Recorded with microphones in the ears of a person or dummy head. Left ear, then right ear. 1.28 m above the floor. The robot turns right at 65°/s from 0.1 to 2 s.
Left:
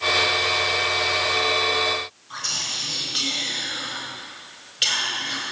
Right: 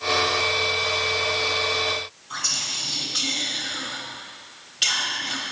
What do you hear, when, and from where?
2.3 s whispering: 5° left (ahead or behind), 1.2 m